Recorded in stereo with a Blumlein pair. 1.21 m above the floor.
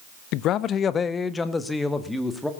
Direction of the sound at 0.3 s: 40° left.